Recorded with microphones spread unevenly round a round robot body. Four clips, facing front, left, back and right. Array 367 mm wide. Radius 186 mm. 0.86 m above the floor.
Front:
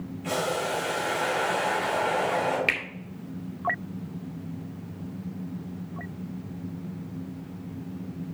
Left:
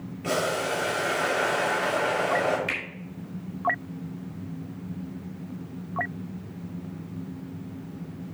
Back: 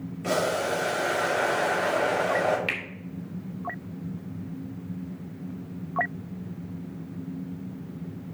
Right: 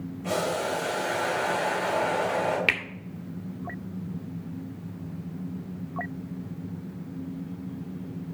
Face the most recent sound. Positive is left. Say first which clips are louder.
# right 4 dB, front 3 dB
turn(degrees=-60)